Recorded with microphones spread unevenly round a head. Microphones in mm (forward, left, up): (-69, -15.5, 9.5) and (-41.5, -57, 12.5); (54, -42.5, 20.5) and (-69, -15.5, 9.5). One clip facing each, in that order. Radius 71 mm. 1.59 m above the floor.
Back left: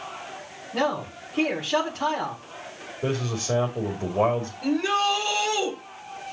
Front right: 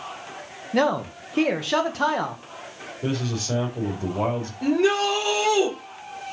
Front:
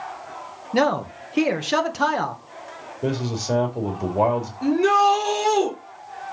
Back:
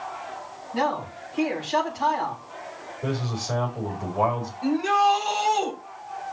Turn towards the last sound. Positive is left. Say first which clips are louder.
# front right 3 dB, front 3 dB
turn(degrees=-20)